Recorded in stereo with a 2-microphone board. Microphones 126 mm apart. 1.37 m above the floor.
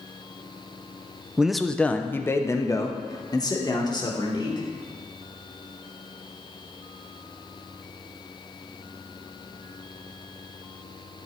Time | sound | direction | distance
1.4 | a man speaking | 10° right (ahead or behind) | 0.6 m